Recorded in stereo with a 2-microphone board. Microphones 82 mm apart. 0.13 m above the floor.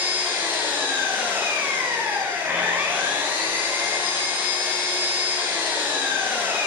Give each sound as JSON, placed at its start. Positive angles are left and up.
{"t": 0.0, "sound": "an engine running", "side_deg": -20, "distance_m": 7.5}